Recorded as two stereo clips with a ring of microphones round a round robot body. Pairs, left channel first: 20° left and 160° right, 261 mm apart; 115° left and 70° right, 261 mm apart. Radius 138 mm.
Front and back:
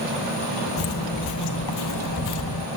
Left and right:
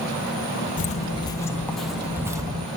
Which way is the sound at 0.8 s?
55° left.